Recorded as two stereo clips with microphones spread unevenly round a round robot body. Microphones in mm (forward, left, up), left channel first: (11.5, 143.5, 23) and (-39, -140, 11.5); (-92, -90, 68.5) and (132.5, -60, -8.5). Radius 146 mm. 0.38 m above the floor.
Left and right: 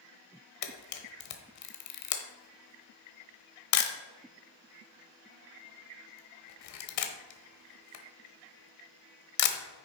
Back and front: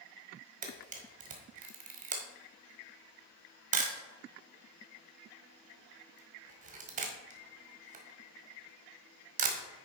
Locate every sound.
0.6 s a camera shutter: 55° left, 1.0 m